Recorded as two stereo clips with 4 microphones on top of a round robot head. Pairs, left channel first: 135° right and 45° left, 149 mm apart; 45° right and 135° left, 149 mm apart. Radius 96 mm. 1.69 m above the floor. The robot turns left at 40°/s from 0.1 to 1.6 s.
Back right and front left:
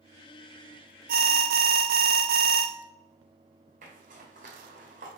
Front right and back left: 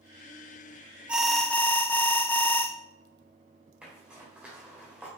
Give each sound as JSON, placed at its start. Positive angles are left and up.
{"t": 1.1, "sound": "an alarm", "azimuth_deg": 55, "distance_m": 0.5}
{"t": 3.8, "sound": "a zipper", "azimuth_deg": 55, "distance_m": 1.6}